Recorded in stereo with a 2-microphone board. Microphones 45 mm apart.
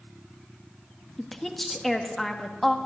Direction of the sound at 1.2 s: 5° left (ahead or behind).